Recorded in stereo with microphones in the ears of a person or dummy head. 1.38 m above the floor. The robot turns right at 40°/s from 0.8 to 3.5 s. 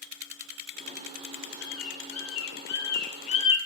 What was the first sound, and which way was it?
A bird, 65° left (ahead or behind).